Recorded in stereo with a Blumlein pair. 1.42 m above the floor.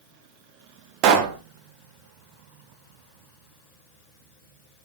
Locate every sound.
1.0 s a pop: 40° right, 1.7 m